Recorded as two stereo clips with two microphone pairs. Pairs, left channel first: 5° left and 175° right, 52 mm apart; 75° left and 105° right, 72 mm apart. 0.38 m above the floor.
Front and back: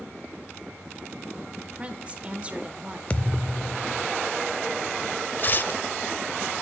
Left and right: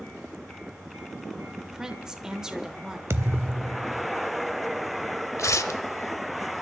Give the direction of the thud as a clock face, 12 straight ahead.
2 o'clock.